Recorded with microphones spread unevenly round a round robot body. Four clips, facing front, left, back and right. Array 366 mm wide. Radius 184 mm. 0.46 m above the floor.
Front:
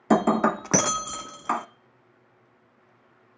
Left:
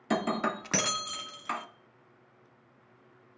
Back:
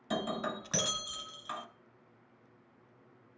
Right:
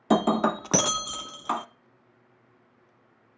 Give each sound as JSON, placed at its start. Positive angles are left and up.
{"t": 0.1, "sound": "breaking glass", "azimuth_deg": -25, "distance_m": 0.6}